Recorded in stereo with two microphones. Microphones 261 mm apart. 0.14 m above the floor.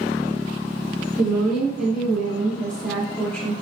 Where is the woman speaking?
5° right (ahead or behind), 1.2 m; by 3.5 s 5° left (ahead or behind), 1.2 m.